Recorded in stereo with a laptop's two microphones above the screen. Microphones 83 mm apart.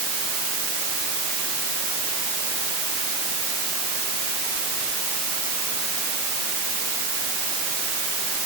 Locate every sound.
Only background noise.